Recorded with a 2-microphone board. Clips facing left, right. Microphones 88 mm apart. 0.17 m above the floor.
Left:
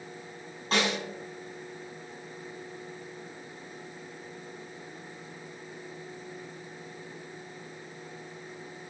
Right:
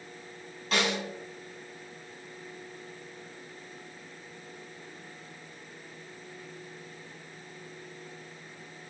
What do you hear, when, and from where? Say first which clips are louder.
0.7 s a snare drum: left 1 dB; 35° left (ahead or behind), 1.3 m